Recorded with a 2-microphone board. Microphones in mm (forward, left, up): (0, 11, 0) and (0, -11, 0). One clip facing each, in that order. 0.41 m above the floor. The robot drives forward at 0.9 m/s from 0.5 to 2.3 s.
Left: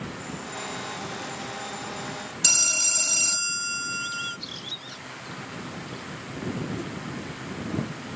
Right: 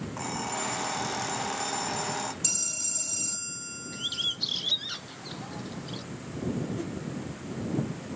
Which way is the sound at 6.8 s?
5° right (ahead or behind).